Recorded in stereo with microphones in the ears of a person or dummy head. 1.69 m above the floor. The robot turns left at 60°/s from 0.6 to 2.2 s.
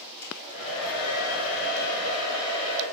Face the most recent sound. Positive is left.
turn(degrees=25)